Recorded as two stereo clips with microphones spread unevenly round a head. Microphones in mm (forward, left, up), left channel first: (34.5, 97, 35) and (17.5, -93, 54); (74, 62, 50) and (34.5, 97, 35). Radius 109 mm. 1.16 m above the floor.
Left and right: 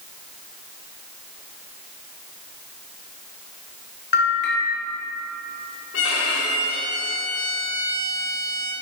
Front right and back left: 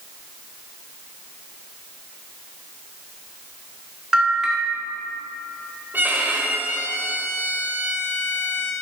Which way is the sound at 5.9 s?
75° left.